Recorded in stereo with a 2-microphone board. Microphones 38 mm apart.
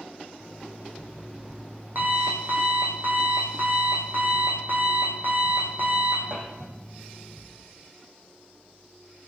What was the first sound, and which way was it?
An alarm clock, 55° right (ahead or behind).